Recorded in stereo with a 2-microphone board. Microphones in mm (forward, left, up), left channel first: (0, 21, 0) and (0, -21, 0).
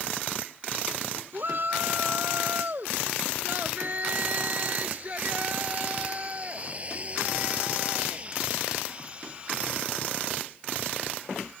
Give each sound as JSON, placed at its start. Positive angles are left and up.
{"t": 1.3, "sound": "a shout", "side_deg": -50}